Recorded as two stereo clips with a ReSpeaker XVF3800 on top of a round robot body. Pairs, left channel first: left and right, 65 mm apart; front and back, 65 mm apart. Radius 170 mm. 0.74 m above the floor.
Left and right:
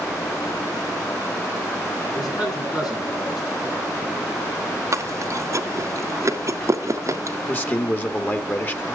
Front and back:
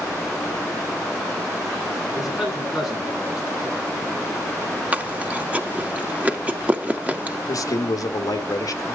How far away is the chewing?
About 1.6 m.